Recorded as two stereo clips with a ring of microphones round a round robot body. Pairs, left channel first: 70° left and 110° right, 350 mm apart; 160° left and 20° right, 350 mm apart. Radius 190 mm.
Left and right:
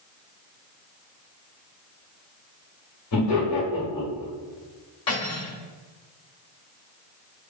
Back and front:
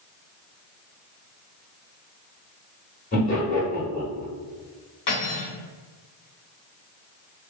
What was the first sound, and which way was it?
Laughter, 95° left.